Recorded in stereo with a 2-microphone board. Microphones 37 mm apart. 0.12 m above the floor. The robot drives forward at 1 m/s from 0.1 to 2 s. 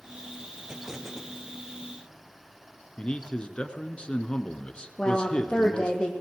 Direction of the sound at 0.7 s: 15° right (ahead or behind).